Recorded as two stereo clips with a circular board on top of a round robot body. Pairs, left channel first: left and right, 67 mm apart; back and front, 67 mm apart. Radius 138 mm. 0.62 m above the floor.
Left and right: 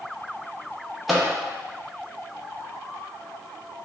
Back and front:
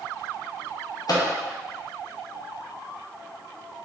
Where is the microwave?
Straight behind, 0.8 m.